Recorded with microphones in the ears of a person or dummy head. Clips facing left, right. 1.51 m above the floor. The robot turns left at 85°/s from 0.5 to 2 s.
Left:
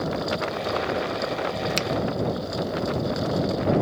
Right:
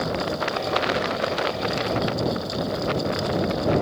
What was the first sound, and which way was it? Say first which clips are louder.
A finger snap: right 1 dB; 50° left (ahead or behind).